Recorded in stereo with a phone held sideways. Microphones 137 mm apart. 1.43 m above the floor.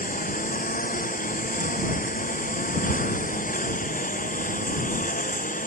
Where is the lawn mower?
80° left; by 5.7 s 75° left (ahead or behind).